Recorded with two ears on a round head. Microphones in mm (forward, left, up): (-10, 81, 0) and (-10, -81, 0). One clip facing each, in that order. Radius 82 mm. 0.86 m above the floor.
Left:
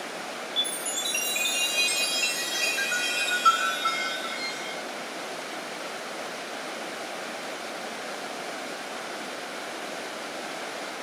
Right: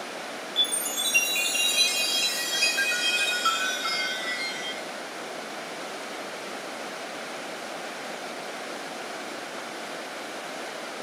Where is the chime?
20° right (ahead or behind), 1.0 m.